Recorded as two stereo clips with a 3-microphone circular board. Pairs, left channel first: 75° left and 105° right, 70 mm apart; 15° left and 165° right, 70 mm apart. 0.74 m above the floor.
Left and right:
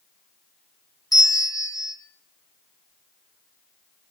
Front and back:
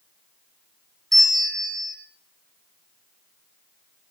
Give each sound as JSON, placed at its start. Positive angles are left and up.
{"t": 1.1, "sound": "a bell", "azimuth_deg": 100, "distance_m": 2.0}